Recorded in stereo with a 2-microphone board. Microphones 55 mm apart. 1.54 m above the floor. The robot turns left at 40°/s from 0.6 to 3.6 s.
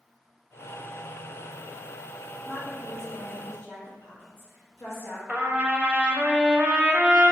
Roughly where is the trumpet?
Right.